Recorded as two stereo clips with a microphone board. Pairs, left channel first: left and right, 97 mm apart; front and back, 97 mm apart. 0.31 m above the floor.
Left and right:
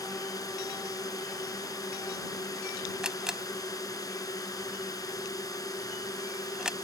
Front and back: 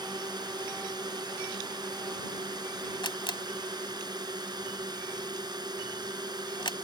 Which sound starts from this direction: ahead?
A camera shutter, at 3.0 s.